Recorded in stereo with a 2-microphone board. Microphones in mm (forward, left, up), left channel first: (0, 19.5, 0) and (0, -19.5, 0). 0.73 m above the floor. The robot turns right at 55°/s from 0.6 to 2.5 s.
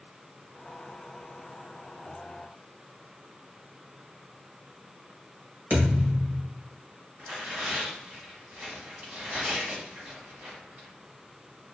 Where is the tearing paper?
45° right (ahead or behind), 1.5 m.